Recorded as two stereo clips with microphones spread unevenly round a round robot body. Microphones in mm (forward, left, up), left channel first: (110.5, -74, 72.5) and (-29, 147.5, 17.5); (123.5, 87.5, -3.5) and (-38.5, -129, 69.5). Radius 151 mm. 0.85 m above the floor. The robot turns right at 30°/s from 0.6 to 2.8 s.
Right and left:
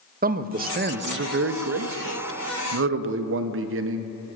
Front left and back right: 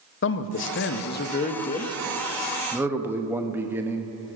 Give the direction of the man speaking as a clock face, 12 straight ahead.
9 o'clock.